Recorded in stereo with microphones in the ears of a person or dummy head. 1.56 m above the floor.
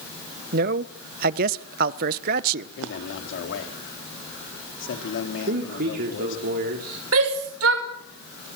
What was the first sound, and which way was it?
A man speaking, 45° right (ahead or behind).